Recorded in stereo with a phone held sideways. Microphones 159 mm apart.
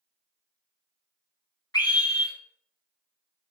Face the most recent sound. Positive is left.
turn(degrees=25)  # may be behind; listen again after turning